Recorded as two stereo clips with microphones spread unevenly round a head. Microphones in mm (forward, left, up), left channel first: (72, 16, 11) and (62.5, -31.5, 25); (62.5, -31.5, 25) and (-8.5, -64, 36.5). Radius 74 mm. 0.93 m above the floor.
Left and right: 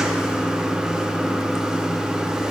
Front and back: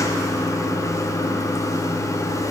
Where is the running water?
25° right, 0.8 m.